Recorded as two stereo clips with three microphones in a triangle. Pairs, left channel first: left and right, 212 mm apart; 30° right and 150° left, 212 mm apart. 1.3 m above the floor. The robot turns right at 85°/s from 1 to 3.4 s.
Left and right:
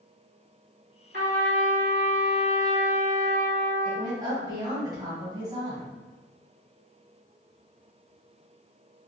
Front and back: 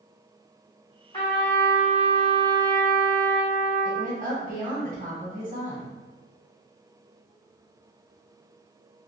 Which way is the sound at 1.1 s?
95° right.